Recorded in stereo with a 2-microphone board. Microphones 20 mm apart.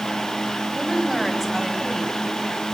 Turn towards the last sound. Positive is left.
turn(degrees=5)  # may be behind; listen again after turning